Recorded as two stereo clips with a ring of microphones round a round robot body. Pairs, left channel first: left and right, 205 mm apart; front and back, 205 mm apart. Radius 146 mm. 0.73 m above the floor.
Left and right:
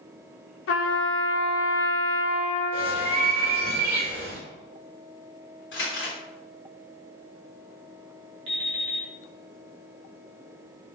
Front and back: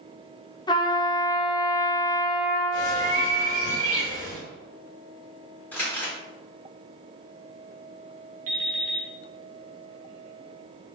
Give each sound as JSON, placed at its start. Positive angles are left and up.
{"t": 0.7, "sound": "a trumpet", "azimuth_deg": 70, "distance_m": 0.6}
{"t": 2.7, "sound": "a bird", "azimuth_deg": -155, "distance_m": 1.9}
{"t": 5.7, "sound": "crumpling", "azimuth_deg": 80, "distance_m": 1.8}
{"t": 8.5, "sound": "an alarm clock", "azimuth_deg": -140, "distance_m": 0.8}